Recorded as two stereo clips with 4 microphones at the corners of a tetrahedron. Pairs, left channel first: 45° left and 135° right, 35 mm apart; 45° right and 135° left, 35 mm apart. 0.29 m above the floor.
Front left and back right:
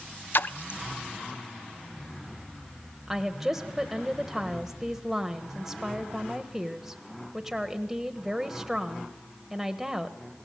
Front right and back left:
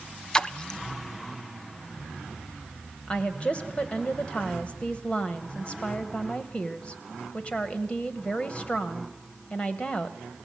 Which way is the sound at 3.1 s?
60° right.